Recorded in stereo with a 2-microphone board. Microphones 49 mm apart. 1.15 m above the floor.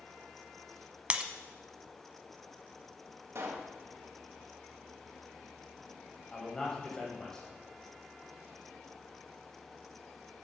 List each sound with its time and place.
1.1 s breaking glass: 25° right (ahead or behind), 1.1 m
3.4 s a pop: 70° right (ahead or behind), 2 m
6.3 s a man speaking: 15° left (ahead or behind), 5 m